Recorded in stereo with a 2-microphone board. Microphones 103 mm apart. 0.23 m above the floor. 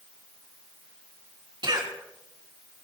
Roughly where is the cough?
Right.